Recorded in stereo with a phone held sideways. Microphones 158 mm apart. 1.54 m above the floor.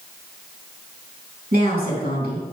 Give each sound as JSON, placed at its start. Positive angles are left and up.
{"t": 1.5, "sound": "a woman speaking", "side_deg": -80, "distance_m": 3.5}